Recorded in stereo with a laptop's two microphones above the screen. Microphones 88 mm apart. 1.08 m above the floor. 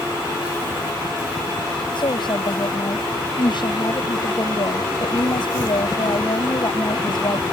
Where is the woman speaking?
60° left (ahead or behind).